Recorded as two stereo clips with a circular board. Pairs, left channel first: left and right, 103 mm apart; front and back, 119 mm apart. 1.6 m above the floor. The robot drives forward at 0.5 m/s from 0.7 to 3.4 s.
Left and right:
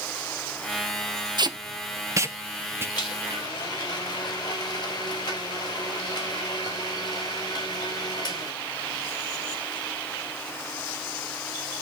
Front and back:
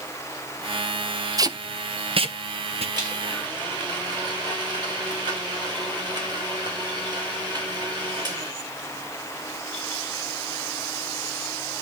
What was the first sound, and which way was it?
Tape being pulled, 125° right.